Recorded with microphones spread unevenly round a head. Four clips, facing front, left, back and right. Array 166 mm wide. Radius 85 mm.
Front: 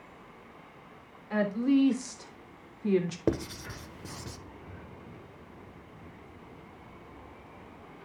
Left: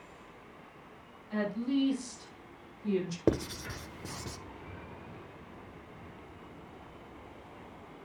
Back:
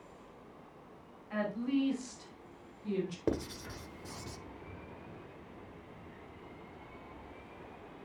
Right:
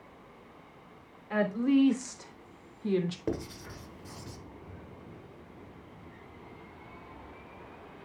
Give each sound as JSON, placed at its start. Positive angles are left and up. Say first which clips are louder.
{"t": 1.3, "sound": "a woman speaking", "louder": "right 5 dB, front 8 dB", "azimuth_deg": -55, "distance_m": 3.5}
{"t": 3.3, "sound": "writing", "louder": "left 5 dB, front 4 dB", "azimuth_deg": 50, "distance_m": 1.1}